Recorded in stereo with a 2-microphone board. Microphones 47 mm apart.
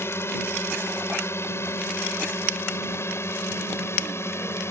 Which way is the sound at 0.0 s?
60° left (ahead or behind).